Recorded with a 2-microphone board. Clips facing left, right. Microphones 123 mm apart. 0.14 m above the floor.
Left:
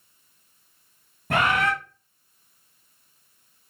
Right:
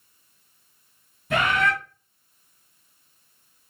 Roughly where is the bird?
Left.